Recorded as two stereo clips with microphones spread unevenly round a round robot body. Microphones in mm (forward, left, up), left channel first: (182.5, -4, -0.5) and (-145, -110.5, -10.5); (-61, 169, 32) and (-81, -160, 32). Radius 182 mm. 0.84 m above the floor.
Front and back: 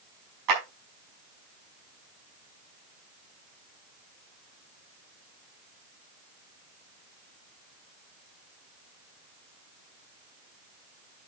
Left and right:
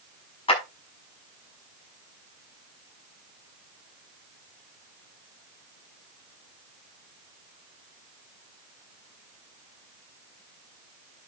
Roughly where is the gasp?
I don't hear a gasp.